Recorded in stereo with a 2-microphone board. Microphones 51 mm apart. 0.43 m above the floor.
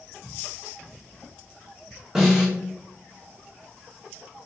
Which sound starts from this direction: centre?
A snare drum, at 2.1 s.